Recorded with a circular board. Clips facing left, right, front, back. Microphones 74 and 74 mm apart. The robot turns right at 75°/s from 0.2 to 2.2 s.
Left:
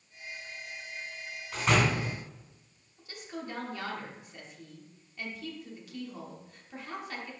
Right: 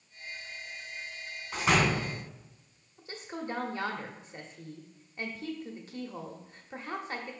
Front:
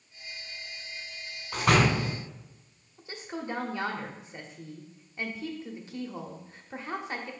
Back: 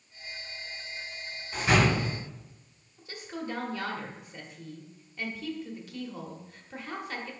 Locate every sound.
1.5 s a door slam: 20° right, 2.5 m; by 2.1 s 30° left, 2.5 m
3.0 s a woman speaking: 50° right, 1.1 m